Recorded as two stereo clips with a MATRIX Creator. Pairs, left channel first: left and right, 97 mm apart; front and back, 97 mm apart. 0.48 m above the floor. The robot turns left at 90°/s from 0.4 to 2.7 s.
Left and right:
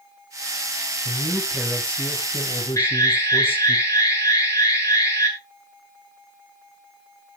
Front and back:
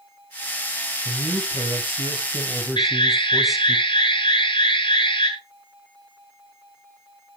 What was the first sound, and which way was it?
A man speaking, 120° right.